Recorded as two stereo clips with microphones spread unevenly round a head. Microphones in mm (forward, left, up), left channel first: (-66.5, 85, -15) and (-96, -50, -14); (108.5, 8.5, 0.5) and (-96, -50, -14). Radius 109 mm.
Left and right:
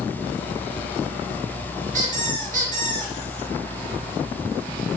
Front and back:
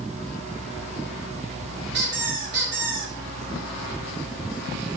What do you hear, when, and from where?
1.9 s a squeak: 125° right, 5 m